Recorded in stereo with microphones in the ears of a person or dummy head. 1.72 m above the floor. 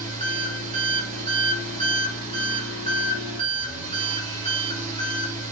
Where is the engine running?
40° right (ahead or behind), 3.5 m.